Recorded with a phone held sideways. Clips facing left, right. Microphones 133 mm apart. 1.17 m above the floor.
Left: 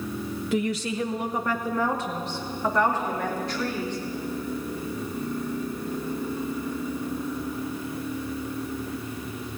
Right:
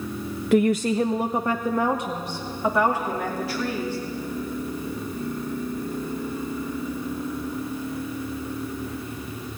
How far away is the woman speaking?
About 0.6 m.